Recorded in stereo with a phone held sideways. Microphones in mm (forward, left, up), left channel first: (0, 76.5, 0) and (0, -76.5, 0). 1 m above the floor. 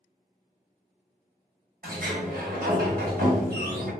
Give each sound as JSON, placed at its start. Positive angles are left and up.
{"t": 1.8, "sound": "a sliding door", "side_deg": -75, "distance_m": 1.5}